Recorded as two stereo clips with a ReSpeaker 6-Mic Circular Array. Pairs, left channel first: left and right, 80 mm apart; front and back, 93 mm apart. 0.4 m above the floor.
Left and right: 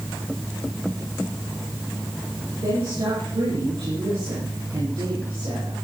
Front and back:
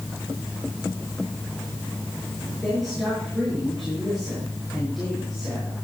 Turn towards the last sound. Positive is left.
turn(degrees=-90)